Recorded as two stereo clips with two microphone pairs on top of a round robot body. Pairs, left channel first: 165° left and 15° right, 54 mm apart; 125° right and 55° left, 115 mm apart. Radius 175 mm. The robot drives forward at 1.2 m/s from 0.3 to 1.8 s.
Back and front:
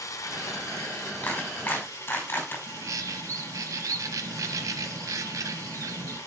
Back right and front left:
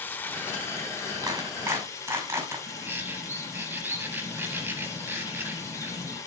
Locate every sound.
0.0 s running water: 160° left, 1.1 m; by 6.3 s 175° left, 3 m
1.2 s a clap: 110° left, 4.5 m; by 2.6 s 120° left, 4.5 m
2.7 s a bird: 15° right, 0.6 m